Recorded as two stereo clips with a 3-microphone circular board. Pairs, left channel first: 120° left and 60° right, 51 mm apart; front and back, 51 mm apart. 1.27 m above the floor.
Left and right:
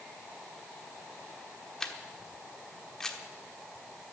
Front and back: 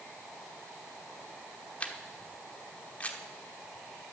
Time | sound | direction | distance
1.8 | a camera shutter | 45° left | 1.0 m